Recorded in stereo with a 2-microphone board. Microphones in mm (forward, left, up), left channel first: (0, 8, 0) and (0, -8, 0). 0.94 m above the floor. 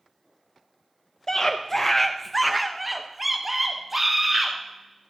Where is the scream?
30° left (ahead or behind), 0.6 m; by 4.5 s 20° right (ahead or behind), 1.7 m.